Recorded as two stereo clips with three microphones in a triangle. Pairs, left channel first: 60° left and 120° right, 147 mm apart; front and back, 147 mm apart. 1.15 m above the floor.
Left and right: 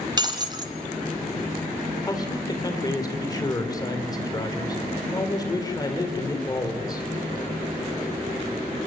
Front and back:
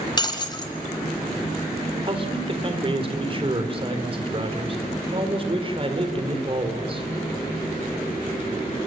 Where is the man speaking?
125° left, 3.5 m.